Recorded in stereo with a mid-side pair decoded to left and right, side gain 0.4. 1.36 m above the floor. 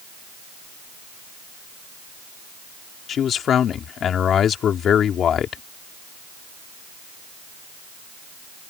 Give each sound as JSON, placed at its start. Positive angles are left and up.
{"t": 3.1, "sound": "a man speaking", "azimuth_deg": 65}